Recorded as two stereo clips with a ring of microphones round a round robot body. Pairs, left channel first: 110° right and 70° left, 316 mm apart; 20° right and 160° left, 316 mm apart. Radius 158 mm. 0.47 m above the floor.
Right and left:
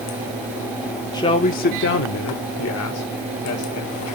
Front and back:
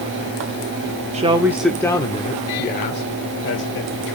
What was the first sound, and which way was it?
A man speaking, 170° right.